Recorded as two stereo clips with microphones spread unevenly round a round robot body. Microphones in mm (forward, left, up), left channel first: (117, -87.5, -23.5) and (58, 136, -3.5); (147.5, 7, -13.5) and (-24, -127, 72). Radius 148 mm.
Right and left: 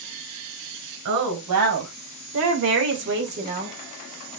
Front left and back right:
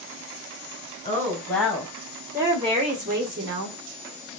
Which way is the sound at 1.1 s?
110° left.